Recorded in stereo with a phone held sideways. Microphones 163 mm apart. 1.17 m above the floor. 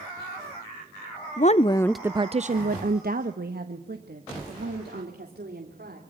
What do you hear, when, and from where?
1.4 s a woman speaking: 50° left (ahead or behind), 0.7 m; by 6.0 s 85° right, 4 m